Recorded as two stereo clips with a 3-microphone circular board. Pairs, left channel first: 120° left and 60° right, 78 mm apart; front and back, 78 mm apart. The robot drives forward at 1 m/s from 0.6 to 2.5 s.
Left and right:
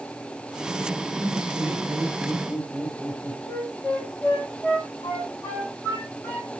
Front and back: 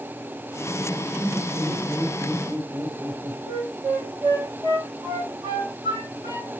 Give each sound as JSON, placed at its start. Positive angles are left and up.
{"t": 1.2, "sound": "laughter", "azimuth_deg": -100, "distance_m": 2.5}
{"t": 3.5, "sound": "a flute", "azimuth_deg": 180, "distance_m": 5.0}